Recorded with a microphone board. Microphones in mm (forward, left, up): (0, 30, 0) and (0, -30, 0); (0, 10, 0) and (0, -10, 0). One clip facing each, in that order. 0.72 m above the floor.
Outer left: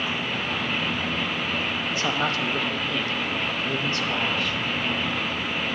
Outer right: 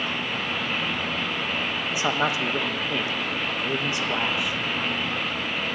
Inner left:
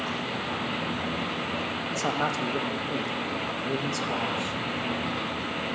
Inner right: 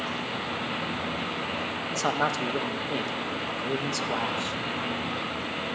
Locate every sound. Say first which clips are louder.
1.9 s a man speaking: outer right 2 dB, inner right 2 dB; 15° right (ahead or behind), 0.5 m